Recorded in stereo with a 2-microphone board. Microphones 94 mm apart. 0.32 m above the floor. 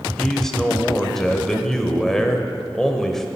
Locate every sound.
0.2 s a man speaking: 5° left (ahead or behind), 0.9 m